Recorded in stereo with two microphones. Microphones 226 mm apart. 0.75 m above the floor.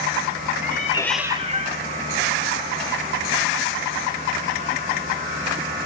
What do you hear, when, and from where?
0.6 s a cat meowing: 45° left (ahead or behind), 0.7 m; by 5.5 s 70° right (ahead or behind), 4.5 m